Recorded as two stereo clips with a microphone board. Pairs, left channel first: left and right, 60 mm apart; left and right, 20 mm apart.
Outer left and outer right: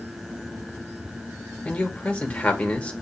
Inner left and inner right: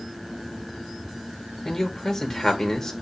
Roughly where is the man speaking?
Centre.